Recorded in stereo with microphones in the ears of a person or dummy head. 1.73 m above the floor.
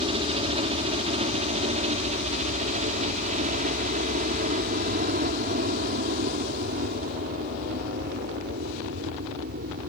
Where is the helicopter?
30° right (ahead or behind); by 9.9 s 50° right (ahead or behind).